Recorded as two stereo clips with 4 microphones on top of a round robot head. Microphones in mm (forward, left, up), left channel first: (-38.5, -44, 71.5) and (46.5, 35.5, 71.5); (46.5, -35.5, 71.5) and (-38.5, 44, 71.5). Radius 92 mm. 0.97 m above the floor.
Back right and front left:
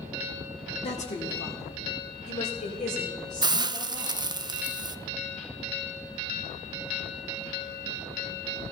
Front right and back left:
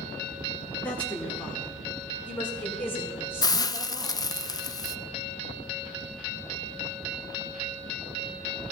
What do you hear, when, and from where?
0.8 s a woman speaking: 125° right, 2.5 m; by 4.3 s 115° right, 7 m
3.4 s a hiss: 5° left, 0.6 m